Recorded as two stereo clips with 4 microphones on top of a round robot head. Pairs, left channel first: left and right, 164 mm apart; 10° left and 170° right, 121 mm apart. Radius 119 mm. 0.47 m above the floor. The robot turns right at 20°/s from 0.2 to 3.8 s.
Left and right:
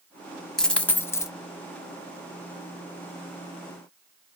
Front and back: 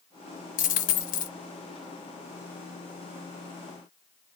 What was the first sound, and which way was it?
A dropped coin, 5° left.